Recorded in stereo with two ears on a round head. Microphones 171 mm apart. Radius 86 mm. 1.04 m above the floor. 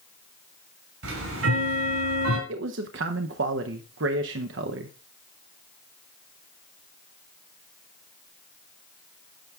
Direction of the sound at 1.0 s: 80° right.